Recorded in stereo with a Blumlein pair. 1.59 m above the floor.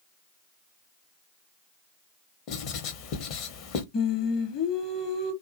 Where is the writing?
40° left, 0.8 m.